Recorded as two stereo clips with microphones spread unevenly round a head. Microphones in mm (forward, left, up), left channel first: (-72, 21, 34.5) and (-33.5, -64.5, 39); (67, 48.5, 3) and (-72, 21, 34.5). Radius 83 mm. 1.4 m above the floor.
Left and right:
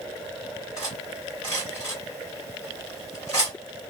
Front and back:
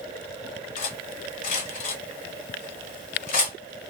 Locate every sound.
0.8 s cutlery clinking: 45° left, 1.3 m